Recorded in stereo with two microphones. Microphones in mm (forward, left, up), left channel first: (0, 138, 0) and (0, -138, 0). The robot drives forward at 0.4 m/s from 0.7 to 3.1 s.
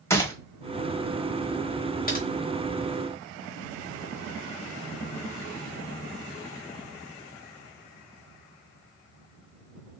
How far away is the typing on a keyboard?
About 0.7 m.